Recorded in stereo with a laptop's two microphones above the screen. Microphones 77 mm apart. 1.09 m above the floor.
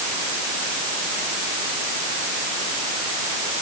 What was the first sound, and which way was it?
Only background noise.